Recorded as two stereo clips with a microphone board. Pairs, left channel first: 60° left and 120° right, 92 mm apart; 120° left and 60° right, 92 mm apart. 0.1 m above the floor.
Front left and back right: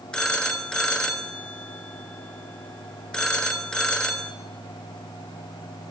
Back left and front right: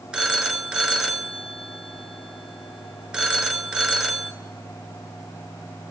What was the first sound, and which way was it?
A phone ringing, straight ahead.